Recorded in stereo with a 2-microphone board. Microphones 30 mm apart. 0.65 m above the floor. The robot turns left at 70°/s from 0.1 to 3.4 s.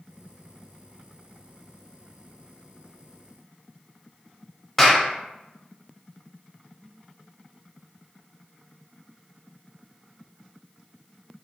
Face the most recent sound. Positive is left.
turn(degrees=10)  # may be behind; listen again after turning